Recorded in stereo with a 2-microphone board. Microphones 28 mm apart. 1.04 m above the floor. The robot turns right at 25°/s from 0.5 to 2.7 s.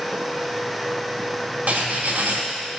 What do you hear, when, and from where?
1.7 s writing: 65° right (ahead or behind), 1.7 m; by 2.4 s 85° right, 1.7 m